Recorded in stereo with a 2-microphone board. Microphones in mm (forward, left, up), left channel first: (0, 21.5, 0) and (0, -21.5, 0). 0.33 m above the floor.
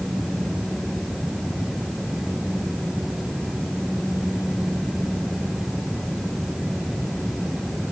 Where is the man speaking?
No man speaking in this recording.